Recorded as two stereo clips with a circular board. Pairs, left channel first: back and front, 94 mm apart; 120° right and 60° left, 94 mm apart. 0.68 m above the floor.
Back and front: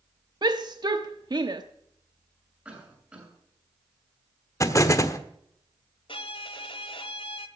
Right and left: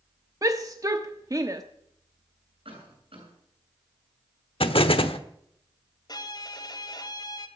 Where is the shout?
20° left, 0.9 m.